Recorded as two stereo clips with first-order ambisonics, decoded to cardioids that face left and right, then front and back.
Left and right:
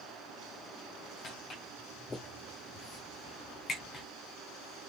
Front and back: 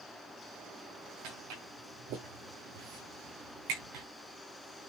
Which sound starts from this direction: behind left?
Footsteps, at 1.2 s.